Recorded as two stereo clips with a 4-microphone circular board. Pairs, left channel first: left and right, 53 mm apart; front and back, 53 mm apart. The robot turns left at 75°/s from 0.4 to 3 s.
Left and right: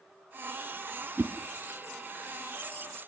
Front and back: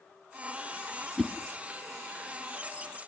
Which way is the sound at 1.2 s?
90° right.